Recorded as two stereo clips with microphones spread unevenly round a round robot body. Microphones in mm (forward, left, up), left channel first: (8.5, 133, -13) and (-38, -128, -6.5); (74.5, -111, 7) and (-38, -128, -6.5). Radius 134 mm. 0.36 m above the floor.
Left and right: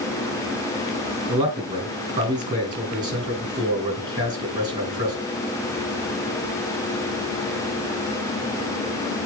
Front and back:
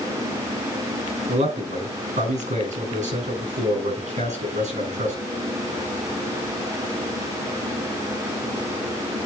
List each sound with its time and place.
1.3 s a man speaking: 175° right, 5 m